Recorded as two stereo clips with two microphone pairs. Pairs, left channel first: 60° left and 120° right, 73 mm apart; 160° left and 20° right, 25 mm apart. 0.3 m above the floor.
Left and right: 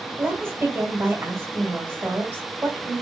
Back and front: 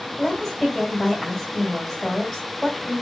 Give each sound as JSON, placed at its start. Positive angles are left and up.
{"t": 0.2, "sound": "a woman speaking", "azimuth_deg": -140, "distance_m": 1.7}